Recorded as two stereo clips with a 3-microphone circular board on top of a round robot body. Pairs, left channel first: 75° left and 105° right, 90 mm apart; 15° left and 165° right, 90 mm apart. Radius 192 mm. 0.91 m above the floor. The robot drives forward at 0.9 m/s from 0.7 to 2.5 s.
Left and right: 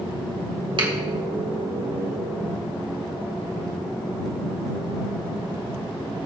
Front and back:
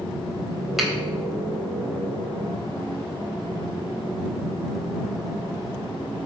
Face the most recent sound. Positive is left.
turn(degrees=-105)